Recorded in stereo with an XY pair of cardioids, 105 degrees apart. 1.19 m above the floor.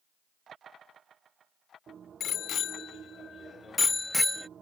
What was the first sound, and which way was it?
A bicycle bell, 65° left.